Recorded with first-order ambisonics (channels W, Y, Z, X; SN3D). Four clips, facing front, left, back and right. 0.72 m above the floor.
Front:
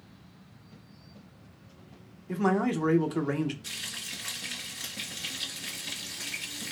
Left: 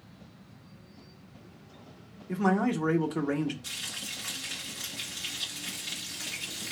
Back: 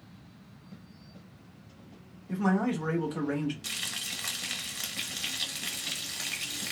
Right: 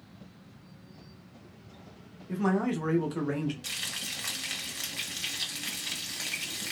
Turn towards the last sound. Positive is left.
turn(degrees=-140)